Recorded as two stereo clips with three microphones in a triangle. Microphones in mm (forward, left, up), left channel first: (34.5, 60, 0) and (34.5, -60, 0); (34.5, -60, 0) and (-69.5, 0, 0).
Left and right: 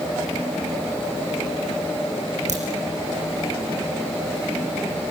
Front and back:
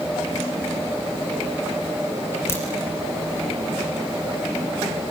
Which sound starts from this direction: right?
A crack, at 2.5 s.